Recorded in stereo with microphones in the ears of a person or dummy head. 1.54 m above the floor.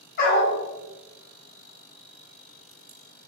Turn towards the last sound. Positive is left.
turn(degrees=55)  # may be behind; listen again after turning